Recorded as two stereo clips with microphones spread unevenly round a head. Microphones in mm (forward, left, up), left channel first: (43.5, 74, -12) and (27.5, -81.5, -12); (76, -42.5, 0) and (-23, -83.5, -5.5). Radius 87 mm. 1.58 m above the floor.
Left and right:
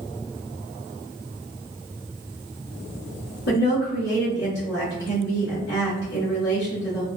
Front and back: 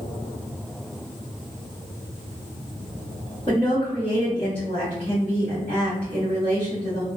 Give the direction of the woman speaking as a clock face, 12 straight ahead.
9 o'clock.